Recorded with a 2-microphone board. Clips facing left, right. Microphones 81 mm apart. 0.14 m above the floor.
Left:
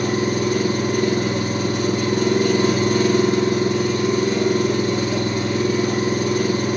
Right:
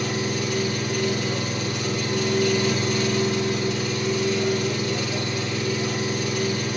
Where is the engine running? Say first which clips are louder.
Left 6 dB; 35° left (ahead or behind), 4 m.